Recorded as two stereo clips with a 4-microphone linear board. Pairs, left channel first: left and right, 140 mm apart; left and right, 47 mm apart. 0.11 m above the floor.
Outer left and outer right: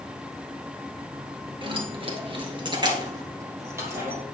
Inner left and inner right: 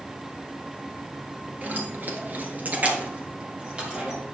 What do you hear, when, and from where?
1.6 s keys jangling: 35° right (ahead or behind), 1.5 m; by 4.2 s 15° right (ahead or behind), 2.5 m